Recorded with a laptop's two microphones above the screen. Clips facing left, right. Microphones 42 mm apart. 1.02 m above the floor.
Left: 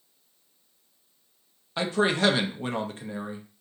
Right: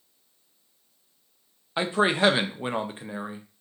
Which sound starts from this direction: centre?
A man speaking, at 1.8 s.